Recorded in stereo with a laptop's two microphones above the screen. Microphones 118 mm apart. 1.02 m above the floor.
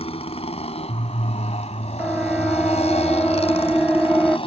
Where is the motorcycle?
65° left (ahead or behind); by 4.5 s 55° left (ahead or behind).